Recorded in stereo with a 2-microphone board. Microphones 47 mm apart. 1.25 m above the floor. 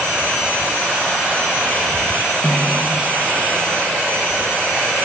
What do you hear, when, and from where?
2.4 s a snare drum: 45° left (ahead or behind), 8 m